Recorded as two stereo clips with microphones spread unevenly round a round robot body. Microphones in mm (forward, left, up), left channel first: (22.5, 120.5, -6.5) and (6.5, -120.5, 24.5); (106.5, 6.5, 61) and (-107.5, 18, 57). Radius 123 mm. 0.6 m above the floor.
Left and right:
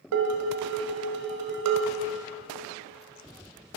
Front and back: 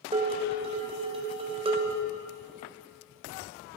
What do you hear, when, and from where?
0.1 s dishes clattering: 120° right, 2 m